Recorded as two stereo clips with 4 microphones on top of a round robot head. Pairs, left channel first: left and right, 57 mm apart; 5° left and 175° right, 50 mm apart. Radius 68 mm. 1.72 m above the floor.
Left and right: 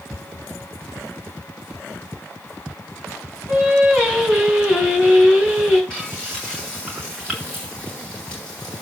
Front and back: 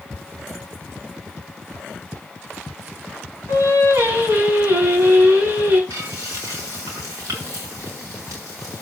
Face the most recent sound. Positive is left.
turn(degrees=170)